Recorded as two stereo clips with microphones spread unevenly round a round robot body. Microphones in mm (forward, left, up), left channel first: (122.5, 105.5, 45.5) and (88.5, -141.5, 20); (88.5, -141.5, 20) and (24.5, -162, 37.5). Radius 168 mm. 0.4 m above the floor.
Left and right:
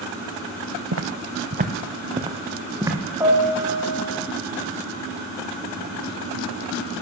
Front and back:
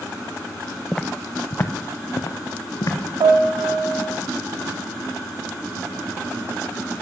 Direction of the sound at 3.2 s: Straight behind.